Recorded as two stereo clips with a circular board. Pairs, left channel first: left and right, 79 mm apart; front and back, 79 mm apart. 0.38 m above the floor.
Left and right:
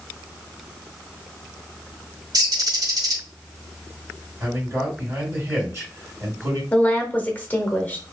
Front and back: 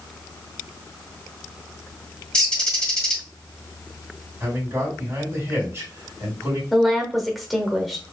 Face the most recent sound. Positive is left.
turn(degrees=95)